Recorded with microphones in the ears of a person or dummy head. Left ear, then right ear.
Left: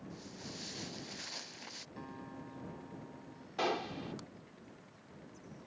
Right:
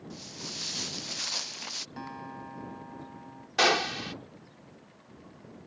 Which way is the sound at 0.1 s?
40° right (ahead or behind).